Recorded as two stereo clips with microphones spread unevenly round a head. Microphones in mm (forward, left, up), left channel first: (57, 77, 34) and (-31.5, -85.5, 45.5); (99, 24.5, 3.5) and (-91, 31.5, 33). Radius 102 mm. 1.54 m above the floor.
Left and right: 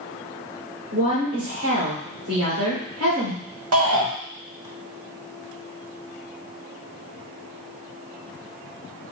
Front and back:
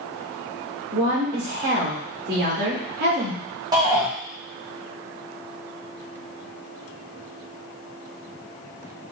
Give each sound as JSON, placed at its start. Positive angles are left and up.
{"t": 0.9, "sound": "a woman speaking", "azimuth_deg": -135, "distance_m": 2.5}
{"t": 3.7, "sound": "a shout", "azimuth_deg": -110, "distance_m": 1.6}